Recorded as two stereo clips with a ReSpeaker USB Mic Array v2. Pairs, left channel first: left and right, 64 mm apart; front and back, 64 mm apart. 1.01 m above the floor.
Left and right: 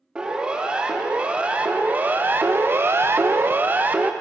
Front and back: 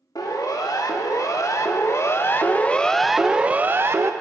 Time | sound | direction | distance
0.1 | a siren | 15° right | 2.5 m